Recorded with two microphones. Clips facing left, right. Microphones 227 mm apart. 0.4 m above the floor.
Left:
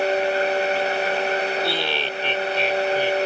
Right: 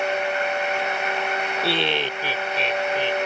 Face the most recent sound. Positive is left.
turn(degrees=10)  # may be behind; listen again after turning